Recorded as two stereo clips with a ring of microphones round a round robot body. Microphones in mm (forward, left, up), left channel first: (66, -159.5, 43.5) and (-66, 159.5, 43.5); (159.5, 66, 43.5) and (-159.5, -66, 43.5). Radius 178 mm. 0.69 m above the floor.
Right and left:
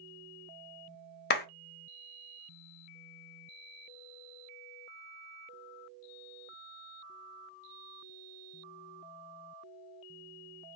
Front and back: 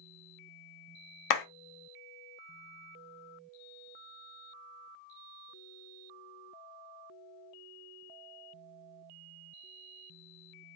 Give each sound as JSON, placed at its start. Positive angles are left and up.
{"t": 1.3, "sound": "a clap", "azimuth_deg": -5, "distance_m": 0.9}